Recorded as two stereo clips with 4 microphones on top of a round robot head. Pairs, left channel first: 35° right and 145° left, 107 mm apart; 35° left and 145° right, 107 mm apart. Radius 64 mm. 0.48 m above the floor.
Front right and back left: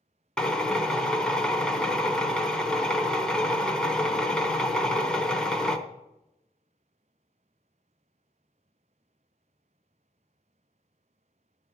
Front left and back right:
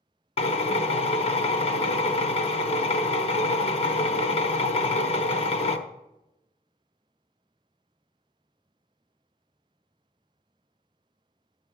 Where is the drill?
45° left, 1.0 m.